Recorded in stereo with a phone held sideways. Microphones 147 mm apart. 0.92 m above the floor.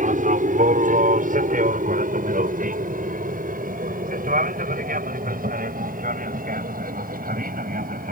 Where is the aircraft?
65° right (ahead or behind); by 8.1 s 75° right (ahead or behind).